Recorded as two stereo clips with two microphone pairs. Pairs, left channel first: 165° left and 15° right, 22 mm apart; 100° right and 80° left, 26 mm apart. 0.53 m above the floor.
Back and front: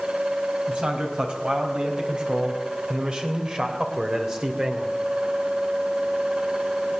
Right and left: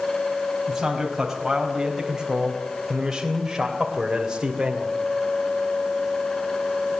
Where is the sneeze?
No sneeze in this recording.